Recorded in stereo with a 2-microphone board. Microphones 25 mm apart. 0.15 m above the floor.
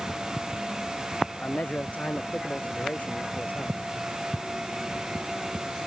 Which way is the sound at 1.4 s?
75° left (ahead or behind).